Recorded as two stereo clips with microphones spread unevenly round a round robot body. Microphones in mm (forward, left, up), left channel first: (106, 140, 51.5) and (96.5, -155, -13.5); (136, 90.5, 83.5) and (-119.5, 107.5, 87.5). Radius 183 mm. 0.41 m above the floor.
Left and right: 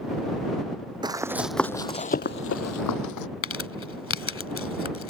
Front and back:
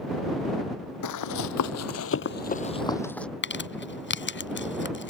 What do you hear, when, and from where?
1.0 s running footsteps: 10° right; by 3.3 s 85° left
3.4 s crumpling: 40° left